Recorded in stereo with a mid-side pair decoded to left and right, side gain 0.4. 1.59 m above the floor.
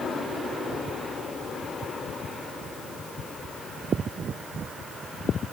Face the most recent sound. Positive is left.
No sound to turn to.